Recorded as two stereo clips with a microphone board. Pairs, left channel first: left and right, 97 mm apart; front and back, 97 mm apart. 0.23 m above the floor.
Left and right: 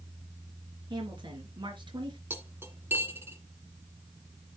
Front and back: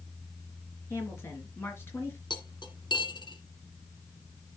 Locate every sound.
0.9 s a woman speaking: 60° right, 4 m
2.3 s cutlery clinking: 25° right, 1.7 m